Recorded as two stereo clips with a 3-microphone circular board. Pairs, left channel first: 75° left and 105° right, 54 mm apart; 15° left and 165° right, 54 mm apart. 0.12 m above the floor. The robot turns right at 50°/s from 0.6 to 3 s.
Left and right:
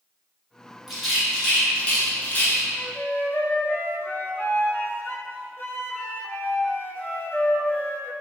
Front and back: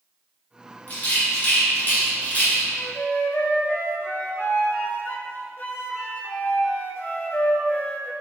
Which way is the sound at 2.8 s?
40° left.